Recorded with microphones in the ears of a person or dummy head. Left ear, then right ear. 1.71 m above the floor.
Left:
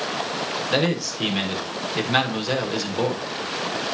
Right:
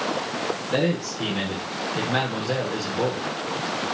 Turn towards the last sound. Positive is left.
turn(degrees=40)  # may be behind; listen again after turning